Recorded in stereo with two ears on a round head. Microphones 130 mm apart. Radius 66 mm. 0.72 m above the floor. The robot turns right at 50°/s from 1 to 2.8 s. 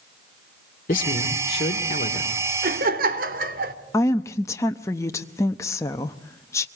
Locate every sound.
0.9 s a man speaking: 60° left, 2 m; by 2.5 s 140° left, 2 m
2.6 s laughter: 65° right (ahead or behind), 2.5 m; by 3.8 s 70° right (ahead or behind), 2.5 m
3.9 s a woman speaking: 20° left (ahead or behind), 0.8 m